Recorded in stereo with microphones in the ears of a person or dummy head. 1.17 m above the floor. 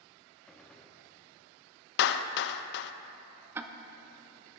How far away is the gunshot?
About 0.7 m.